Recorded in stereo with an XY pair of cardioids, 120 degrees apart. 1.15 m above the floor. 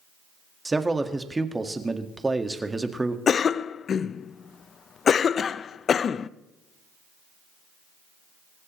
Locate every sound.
0.7 s a man speaking: 15° right, 1.7 m
3.3 s a cough: 40° left, 0.6 m